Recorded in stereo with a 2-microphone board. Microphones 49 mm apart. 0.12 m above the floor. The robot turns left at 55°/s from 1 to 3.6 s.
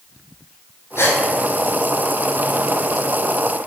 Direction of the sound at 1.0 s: 55° left (ahead or behind).